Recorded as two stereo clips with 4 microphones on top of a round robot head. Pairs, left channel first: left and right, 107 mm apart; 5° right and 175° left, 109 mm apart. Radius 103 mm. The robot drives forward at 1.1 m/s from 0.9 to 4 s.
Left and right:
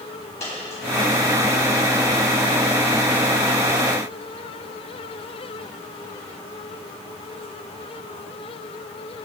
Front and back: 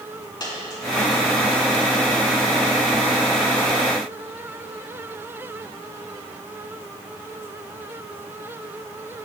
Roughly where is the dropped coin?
Ahead left.